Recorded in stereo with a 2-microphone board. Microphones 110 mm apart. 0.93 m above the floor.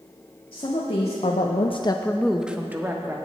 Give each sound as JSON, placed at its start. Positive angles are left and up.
{"t": 0.5, "sound": "a woman speaking", "side_deg": 60, "distance_m": 1.7}